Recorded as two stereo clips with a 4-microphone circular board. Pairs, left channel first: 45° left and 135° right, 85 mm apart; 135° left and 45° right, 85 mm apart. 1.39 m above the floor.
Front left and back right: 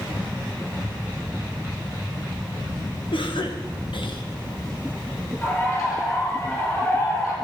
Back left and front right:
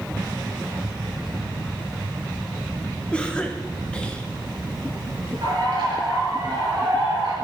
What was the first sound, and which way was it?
A cough, 55° left.